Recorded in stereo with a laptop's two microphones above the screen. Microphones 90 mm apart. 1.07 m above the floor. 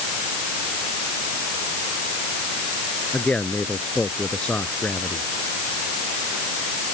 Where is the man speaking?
15° left (ahead or behind).